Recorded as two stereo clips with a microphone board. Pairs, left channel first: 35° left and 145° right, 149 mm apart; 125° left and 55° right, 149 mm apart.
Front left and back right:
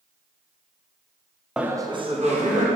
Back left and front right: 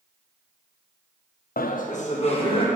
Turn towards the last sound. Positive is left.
turn(degrees=180)